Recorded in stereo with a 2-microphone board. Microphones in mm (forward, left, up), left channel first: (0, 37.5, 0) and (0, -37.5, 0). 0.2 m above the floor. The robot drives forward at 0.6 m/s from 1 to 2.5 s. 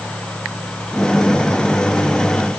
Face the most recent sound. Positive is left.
No sound to turn to.